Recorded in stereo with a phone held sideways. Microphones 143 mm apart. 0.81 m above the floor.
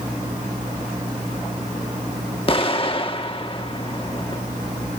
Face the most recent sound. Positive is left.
turn(degrees=40)  # may be behind; listen again after turning